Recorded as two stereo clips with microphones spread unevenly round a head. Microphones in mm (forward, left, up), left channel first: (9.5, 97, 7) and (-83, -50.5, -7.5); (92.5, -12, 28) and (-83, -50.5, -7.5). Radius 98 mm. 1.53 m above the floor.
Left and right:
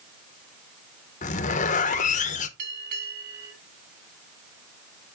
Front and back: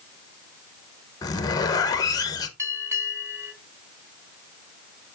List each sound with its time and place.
1.2 s a zipper: 60° left, 0.7 m
2.6 s a bell: 85° right, 2.5 m